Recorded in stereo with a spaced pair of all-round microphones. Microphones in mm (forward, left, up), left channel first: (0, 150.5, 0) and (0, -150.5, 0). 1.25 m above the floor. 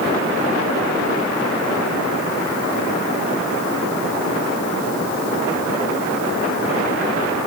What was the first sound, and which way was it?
Only background noise.